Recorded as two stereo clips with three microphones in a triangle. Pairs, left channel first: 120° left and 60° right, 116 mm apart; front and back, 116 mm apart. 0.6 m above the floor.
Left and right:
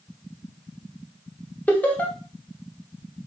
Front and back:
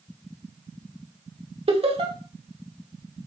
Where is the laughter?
165° right, 1.1 m.